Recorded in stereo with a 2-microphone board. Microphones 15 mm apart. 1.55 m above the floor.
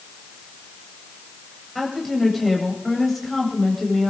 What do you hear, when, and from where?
1.8 s a woman speaking: 5° right (ahead or behind), 8.5 m